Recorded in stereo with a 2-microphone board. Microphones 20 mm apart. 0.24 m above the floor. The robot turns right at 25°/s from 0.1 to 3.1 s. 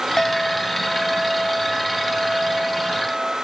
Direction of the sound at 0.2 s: 15° left (ahead or behind).